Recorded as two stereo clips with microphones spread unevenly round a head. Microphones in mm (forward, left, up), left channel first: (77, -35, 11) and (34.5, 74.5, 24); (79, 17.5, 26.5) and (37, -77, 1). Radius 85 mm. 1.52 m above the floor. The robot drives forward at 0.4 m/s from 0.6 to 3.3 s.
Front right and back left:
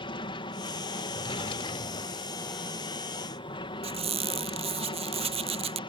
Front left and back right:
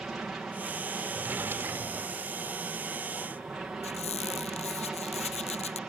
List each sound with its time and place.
0.0 s an aircraft: 35° right
1.1 s a drawer: 30° right; by 2.4 s 50° right
3.8 s a squeak: 85° left